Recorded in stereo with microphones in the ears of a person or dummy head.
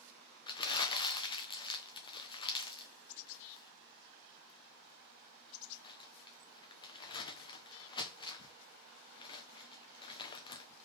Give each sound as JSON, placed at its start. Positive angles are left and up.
{"t": 0.5, "sound": "crumpling", "side_deg": 20, "distance_m": 0.5}